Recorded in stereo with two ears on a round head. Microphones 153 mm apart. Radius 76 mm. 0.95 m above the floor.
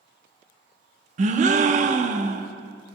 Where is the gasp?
45° right (ahead or behind), 0.7 m.